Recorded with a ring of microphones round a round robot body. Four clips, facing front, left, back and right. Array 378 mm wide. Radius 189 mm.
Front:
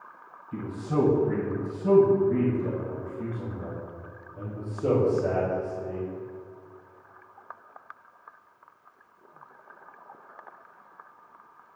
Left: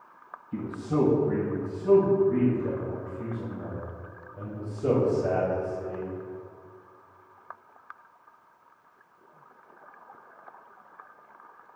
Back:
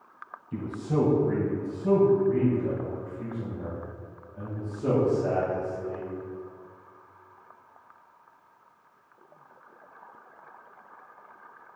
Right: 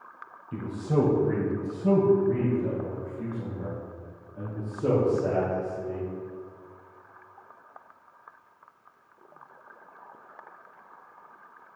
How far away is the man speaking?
About 2 m.